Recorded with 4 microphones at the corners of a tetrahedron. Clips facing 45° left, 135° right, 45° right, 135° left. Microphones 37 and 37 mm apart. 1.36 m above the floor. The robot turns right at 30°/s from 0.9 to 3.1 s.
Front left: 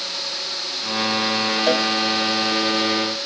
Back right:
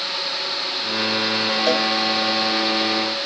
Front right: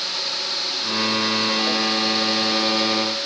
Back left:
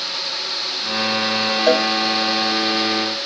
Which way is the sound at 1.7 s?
130° left.